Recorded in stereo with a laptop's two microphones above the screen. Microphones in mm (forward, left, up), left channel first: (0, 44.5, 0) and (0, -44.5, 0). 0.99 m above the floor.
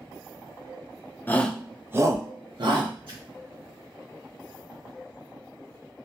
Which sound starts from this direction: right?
A splash, at 3.1 s.